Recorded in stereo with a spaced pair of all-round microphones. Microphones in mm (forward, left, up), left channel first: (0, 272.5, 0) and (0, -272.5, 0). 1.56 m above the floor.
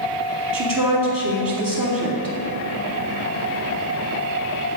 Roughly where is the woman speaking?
Right.